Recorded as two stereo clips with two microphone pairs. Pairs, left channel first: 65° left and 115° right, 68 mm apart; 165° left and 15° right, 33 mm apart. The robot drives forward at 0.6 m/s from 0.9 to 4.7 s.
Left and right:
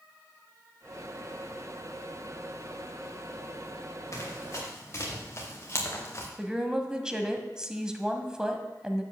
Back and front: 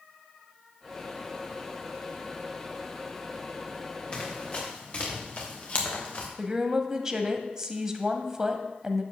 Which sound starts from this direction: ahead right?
A woman speaking, at 6.4 s.